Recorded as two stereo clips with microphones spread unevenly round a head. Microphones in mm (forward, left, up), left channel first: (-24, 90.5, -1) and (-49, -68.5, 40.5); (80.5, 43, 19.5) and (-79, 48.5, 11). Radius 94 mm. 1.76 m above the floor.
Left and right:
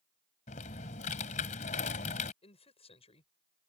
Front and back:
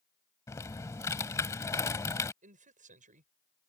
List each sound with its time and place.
0.5 s typing on a keyboard: 45° left
2.4 s a man speaking: 140° left